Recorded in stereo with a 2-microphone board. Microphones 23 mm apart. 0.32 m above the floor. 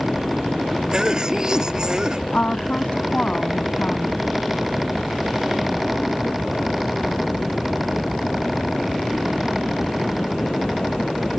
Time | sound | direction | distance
0.9 | a cough | 30° right (ahead or behind) | ?
2.3 | a woman speaking | 55° left (ahead or behind) | ?